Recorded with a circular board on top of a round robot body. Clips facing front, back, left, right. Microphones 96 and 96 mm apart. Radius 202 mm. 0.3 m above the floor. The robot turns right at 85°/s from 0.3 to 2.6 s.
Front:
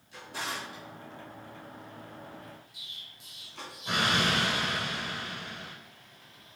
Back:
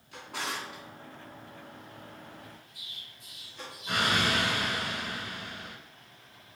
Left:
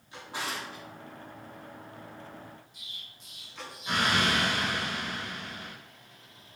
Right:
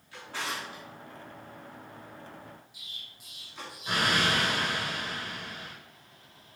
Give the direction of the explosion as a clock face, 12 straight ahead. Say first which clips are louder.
Back 1 dB, even; 12 o'clock.